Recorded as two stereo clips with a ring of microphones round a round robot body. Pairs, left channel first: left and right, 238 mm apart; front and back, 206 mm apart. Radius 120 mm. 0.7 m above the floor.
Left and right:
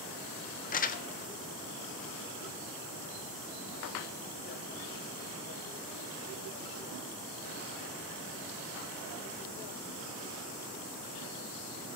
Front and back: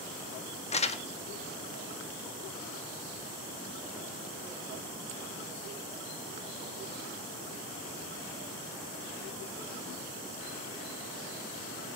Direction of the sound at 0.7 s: 50° left.